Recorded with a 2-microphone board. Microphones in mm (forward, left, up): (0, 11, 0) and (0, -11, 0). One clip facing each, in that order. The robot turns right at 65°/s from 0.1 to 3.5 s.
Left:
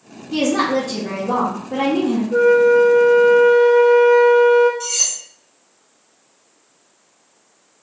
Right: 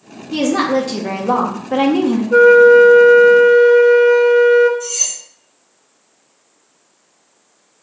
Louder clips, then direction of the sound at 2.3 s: Right 6 dB; 90° right.